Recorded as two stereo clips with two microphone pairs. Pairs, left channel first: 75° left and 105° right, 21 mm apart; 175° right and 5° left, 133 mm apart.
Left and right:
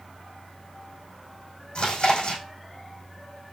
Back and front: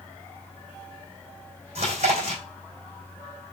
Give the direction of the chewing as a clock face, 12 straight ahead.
11 o'clock.